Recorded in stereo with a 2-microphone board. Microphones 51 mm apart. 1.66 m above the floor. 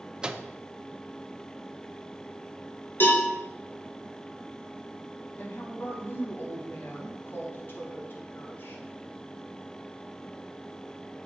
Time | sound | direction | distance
0.2 | a microwave | 15° right (ahead or behind) | 0.5 m
3.0 | a cowbell | 45° left (ahead or behind) | 2.5 m
5.4 | a woman speaking | 40° left (ahead or behind) | 2.5 m